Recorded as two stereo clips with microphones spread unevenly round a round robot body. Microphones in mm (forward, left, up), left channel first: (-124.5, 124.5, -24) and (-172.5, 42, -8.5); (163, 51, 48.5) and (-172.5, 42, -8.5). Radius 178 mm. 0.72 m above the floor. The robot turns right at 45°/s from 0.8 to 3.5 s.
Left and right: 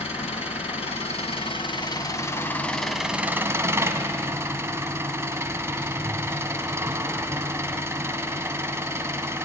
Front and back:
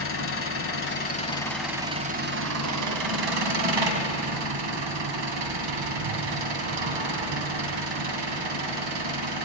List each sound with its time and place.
0.0 s an engine running: 55° left, 3.5 m; by 9.5 s 175° left, 3.5 m